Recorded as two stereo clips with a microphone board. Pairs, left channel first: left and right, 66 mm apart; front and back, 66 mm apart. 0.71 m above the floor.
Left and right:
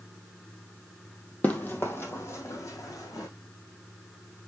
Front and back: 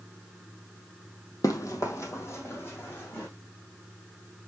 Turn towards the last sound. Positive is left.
turn(degrees=55)